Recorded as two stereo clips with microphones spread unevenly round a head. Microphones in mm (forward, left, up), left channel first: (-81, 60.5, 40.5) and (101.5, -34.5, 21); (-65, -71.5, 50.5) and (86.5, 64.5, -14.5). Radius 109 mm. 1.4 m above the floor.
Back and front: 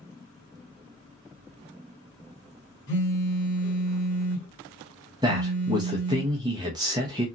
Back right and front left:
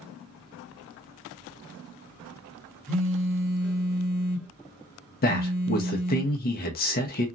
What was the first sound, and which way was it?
A phone buzzing, 150° left.